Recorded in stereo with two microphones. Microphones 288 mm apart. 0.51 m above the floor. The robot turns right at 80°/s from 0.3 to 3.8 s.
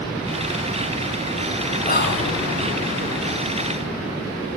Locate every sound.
1.9 s whispering: 30° left, 2.5 m; by 2.4 s 70° left, 2.5 m